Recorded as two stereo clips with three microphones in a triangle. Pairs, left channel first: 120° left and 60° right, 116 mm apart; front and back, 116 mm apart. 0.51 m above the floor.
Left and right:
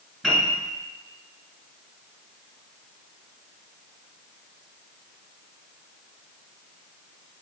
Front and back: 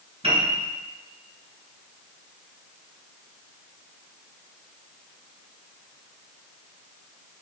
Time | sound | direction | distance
0.2 | a piano | 145° right | 2.5 m